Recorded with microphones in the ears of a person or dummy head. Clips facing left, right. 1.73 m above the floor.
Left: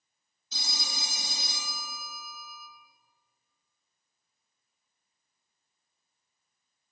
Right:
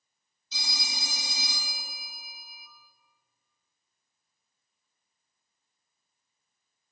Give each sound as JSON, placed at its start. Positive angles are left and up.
{"t": 0.5, "sound": "a phone ringing", "side_deg": 45, "distance_m": 1.8}